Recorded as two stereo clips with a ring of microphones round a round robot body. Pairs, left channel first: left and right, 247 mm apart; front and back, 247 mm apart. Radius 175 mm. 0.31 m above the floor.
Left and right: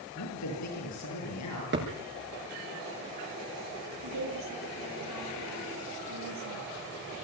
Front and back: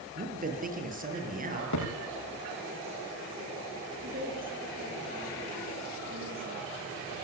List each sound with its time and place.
0.1 s a man speaking: 125° left, 8.5 m
1.7 s a thud: 45° right, 9.5 m
4.0 s a woman speaking: 115° right, 5.5 m